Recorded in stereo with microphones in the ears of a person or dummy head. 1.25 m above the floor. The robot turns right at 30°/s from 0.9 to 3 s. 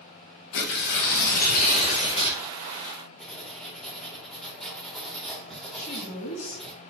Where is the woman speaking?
70° left (ahead or behind), 1.5 m.